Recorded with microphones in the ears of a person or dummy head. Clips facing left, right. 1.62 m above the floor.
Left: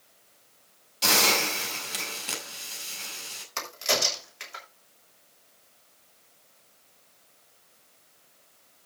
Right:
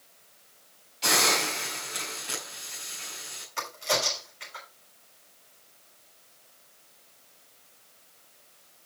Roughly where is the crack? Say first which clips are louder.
Even; left.